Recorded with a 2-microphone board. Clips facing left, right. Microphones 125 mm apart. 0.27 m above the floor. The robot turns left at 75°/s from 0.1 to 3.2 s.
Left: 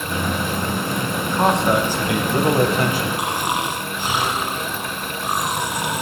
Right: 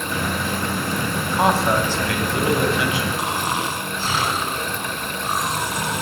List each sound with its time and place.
1.2 s a man speaking: 150° right, 1.6 m; by 3.1 s 70° left, 1.6 m
3.2 s snoring: 15° left (ahead or behind), 1.7 m